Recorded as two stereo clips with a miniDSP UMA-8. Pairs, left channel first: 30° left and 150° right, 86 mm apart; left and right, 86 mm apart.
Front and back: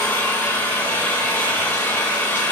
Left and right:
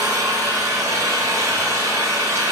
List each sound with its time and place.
0.0 s an engine running: 30° right, 2.5 m